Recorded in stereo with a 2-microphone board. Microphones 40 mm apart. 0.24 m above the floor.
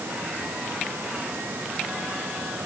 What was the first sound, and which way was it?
Only background noise.